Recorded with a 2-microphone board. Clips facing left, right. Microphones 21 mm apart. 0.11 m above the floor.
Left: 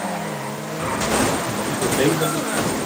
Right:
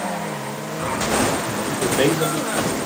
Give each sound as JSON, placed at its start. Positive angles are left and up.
{"t": 1.7, "sound": "a man speaking", "side_deg": -5, "distance_m": 1.2}